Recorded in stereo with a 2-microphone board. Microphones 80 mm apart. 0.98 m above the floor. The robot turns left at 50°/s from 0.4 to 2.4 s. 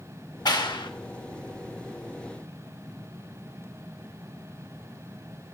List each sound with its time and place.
0.5 s a clap: 55° left (ahead or behind), 1.1 m; by 0.9 s 75° left (ahead or behind), 1.1 m